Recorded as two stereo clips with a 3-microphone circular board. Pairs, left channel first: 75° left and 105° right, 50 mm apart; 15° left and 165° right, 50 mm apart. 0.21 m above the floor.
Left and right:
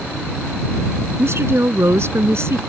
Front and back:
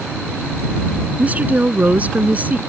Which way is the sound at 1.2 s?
115° right.